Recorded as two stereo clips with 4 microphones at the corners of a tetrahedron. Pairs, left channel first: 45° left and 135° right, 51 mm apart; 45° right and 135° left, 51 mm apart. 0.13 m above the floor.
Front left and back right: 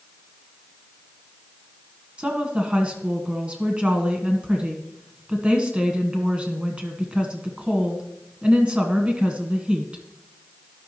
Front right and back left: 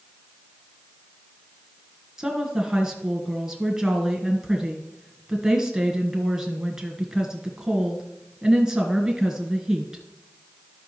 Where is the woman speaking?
165° right, 1.3 m.